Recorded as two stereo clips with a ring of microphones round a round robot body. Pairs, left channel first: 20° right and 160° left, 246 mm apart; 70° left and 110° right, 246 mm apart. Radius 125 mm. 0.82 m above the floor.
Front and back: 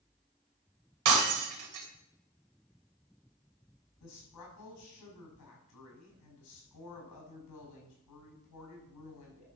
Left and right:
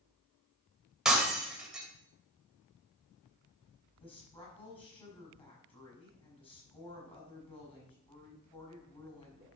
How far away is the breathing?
No breathing in this recording.